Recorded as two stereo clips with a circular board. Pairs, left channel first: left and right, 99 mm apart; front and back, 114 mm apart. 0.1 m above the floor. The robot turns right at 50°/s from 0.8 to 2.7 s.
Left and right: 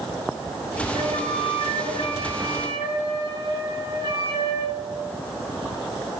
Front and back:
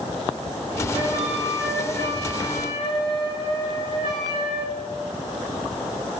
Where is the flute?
120° right, 2 m; by 4.8 s 30° right, 2 m.